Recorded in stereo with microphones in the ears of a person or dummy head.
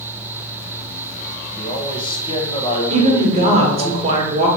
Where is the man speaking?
30° left (ahead or behind), 1.0 m.